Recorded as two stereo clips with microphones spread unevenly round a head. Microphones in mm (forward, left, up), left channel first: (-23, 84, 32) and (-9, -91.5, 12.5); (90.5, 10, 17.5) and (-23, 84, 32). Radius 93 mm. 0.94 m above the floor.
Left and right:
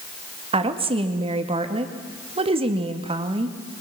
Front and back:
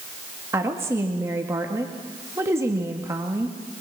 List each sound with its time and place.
0.5 s a woman speaking: 135° right, 1.9 m